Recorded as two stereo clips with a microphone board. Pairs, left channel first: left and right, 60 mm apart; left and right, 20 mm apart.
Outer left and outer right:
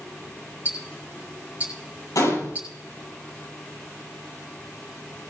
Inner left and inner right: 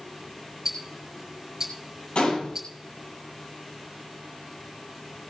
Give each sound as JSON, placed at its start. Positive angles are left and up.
{"t": 0.7, "sound": "ticking", "side_deg": -25, "distance_m": 6.0}
{"t": 2.1, "sound": "a gunshot", "side_deg": 70, "distance_m": 7.0}